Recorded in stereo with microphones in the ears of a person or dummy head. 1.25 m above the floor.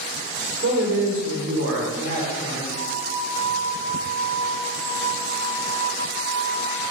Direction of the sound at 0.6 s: 65° right (ahead or behind).